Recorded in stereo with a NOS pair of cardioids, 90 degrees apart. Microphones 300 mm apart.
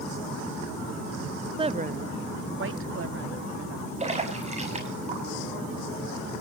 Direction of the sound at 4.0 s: 20° right.